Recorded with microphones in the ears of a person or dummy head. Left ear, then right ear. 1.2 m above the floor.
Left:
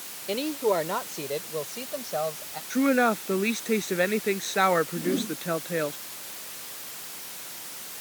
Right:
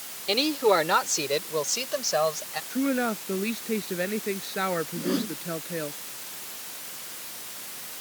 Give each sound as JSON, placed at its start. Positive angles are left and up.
{"t": 0.3, "sound": "a woman speaking", "side_deg": -50}
{"t": 2.7, "sound": "a woman speaking", "side_deg": 30}
{"t": 5.0, "sound": "a whoosh", "side_deg": -45}